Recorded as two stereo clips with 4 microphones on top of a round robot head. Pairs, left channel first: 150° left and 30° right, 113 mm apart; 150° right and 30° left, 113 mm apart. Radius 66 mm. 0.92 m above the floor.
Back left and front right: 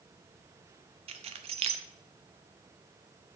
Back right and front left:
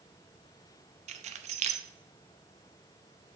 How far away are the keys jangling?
About 0.7 m.